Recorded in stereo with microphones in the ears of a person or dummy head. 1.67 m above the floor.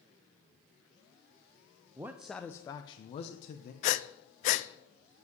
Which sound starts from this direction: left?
Breathing, at 3.8 s.